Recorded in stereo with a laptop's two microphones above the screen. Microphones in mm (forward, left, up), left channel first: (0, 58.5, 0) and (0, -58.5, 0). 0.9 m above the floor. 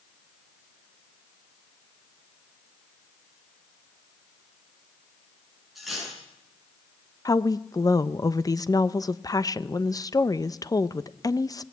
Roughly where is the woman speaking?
Left.